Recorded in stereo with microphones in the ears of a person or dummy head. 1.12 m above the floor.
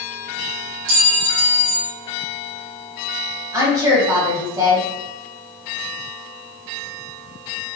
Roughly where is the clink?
Right.